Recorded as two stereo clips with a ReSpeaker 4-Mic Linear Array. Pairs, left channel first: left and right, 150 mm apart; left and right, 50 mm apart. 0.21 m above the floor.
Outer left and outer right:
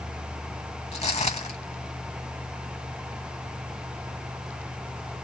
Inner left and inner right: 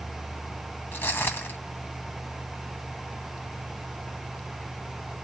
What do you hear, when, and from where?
0.9 s footsteps: 45° left (ahead or behind), 0.7 m